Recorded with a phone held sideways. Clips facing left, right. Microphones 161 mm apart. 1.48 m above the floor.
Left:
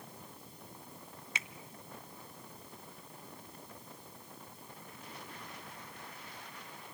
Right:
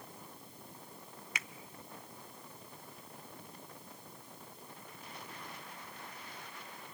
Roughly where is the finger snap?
Left.